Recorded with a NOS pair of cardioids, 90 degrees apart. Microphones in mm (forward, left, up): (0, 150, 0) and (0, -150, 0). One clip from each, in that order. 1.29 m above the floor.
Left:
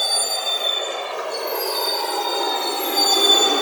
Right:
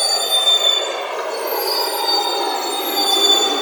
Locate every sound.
0.0 s a vehicle: 30° right; by 3.6 s straight ahead